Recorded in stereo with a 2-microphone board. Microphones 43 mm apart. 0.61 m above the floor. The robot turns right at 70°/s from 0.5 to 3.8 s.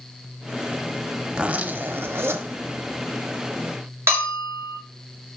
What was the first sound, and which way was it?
A zipper, 165° right.